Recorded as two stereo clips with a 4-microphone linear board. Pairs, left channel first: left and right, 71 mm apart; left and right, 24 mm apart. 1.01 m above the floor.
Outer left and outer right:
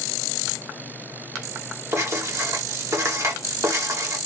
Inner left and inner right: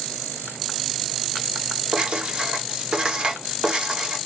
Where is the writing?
40° right (ahead or behind), 1.3 m.